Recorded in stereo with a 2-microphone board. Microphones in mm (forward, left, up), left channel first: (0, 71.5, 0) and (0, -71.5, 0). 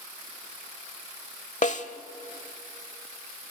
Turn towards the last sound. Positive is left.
turn(degrees=55)  # may be behind; listen again after turning